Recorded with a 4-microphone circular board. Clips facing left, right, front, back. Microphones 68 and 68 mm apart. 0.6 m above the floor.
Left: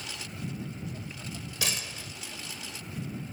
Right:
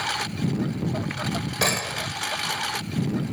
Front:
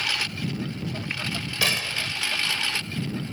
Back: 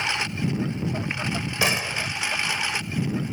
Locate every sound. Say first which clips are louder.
0.0 s a lawn mower: right 13 dB, back 3 dB; 110° right
1.6 s a gunshot: right 10 dB, back 2 dB; 115° right